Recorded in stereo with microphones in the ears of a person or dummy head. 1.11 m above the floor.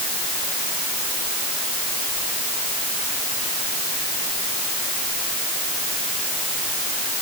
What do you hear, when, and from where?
Only background noise.